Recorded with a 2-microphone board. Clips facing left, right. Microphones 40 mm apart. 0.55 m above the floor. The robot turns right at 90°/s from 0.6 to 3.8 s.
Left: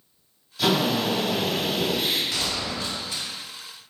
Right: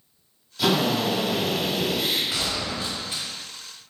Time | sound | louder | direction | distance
0.6 | a drill | even | 5° right | 1.8 m
2.3 | a gunshot | even | 20° right (ahead or behind) | 1.1 m